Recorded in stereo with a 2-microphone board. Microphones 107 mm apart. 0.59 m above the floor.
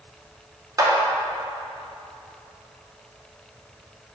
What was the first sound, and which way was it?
A clap, 35° right (ahead or behind).